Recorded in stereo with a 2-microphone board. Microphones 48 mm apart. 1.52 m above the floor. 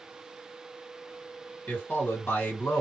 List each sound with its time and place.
1.7 s a man speaking: 40° left (ahead or behind), 1.3 m